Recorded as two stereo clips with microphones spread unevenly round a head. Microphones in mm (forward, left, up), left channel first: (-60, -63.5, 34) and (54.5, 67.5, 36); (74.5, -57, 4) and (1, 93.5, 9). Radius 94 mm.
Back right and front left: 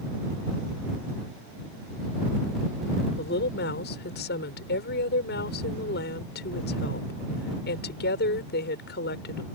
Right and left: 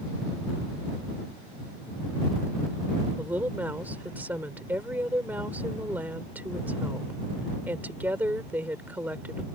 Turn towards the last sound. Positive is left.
turn(degrees=-160)